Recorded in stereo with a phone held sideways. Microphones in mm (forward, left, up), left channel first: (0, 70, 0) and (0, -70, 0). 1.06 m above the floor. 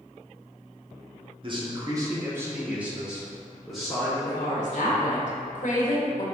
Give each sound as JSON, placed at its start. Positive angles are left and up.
{"t": 1.4, "sound": "a man speaking", "side_deg": -40, "distance_m": 0.9}
{"t": 4.2, "sound": "a woman speaking", "side_deg": 70, "distance_m": 1.1}